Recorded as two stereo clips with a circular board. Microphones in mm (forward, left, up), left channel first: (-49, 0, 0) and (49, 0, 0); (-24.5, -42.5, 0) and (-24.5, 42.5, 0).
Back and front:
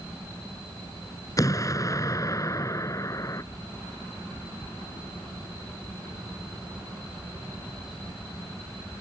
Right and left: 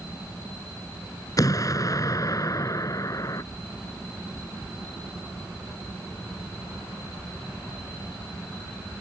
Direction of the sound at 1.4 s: 130° right.